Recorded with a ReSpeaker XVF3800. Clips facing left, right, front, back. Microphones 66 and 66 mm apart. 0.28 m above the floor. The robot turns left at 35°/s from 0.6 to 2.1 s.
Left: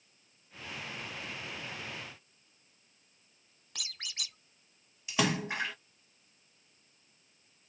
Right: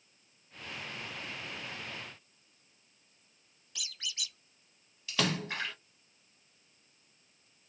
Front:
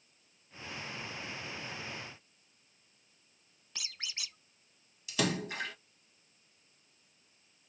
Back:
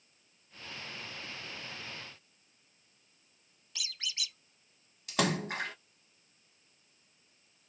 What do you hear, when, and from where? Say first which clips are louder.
3.8 s a squeak: right 1 dB, back 3 dB; 55° left, 0.8 m
5.1 s a splash: left 2 dB, back 2 dB; 160° left, 1.1 m